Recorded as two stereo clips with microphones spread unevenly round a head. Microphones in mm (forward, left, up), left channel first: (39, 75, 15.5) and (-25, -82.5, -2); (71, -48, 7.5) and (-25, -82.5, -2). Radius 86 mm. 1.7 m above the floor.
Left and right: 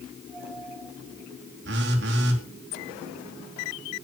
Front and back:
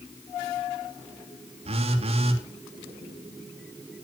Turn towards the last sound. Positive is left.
turn(degrees=-140)